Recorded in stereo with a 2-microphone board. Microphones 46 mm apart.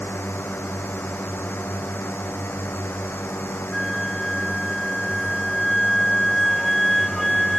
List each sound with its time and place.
0.0 s a drone: 55° left (ahead or behind)
3.7 s a flute: 5° left (ahead or behind)